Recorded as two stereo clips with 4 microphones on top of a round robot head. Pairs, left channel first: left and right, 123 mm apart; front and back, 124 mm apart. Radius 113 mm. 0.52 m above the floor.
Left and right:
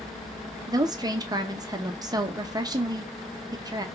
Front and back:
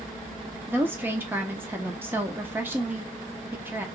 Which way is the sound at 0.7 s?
120° right.